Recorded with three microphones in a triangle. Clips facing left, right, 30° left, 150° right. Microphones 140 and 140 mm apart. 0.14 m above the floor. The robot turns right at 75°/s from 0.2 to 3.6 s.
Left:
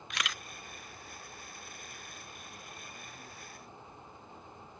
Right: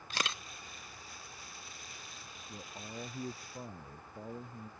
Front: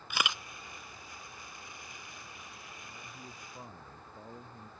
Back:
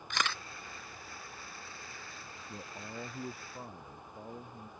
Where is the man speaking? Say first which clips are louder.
Right 4 dB, back 6 dB; 155° right; by 4.7 s 75° right.